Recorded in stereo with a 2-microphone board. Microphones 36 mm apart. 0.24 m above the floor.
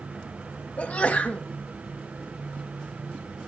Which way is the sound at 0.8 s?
40° left (ahead or behind).